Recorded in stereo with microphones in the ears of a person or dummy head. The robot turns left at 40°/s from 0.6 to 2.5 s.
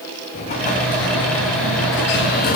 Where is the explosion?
135° left, 0.7 m; by 2.6 s 60° left, 0.7 m.